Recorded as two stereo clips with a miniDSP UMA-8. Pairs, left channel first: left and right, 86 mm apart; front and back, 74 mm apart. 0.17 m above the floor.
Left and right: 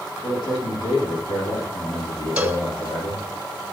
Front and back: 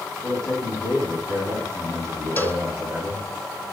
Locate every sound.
0.2 s a man speaking: 65° left, 7.5 m
2.4 s a cowbell: 25° right, 1.7 m